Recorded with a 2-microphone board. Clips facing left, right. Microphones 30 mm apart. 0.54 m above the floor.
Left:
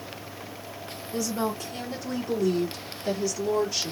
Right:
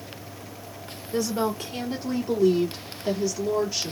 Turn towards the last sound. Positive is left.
turn(degrees=-5)  # may be behind; listen again after turning